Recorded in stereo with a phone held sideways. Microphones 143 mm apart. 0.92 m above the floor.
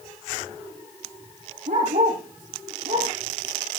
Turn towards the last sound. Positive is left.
turn(degrees=-65)  # may be behind; listen again after turning